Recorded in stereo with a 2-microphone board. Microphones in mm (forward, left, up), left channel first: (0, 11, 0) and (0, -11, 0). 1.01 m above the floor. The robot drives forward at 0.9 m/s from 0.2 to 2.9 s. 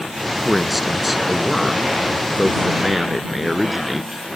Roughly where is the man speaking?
Centre.